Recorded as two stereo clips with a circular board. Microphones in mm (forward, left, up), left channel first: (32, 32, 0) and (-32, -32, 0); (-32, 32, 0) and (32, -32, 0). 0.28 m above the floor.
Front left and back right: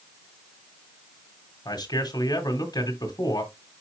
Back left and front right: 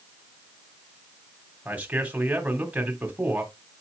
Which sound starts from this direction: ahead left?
A man speaking, at 1.6 s.